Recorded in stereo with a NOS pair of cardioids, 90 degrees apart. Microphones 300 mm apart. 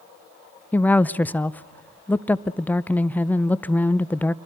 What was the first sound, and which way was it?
A woman speaking, 5° left.